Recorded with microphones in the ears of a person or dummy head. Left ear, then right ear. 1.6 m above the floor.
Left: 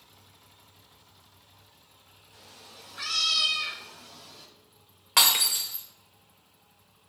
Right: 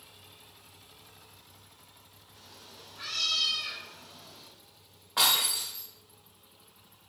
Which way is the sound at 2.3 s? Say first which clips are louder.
Left 2 dB; 30° left (ahead or behind).